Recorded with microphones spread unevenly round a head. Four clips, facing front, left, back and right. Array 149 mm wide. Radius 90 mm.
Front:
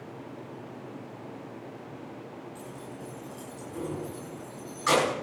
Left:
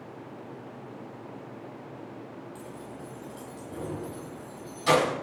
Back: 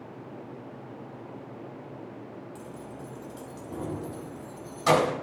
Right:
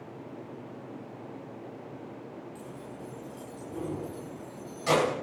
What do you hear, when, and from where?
2.5 s keys jangling: 150° right, 6.5 m; by 5.2 s 165° right, 6 m